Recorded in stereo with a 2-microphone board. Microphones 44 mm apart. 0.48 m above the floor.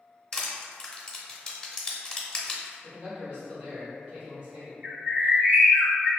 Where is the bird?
40° right (ahead or behind), 0.9 m.